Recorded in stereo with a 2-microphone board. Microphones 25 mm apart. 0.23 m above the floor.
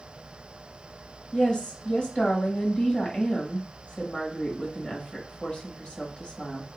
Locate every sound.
1.3 s a woman speaking: 45° left (ahead or behind), 1.6 m